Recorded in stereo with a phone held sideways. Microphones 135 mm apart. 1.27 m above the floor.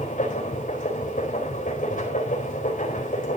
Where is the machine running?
80° left, 4 m.